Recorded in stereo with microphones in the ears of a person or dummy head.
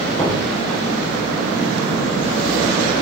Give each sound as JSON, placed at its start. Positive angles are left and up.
{"t": 0.2, "sound": "knocking", "side_deg": 15, "distance_m": 5.0}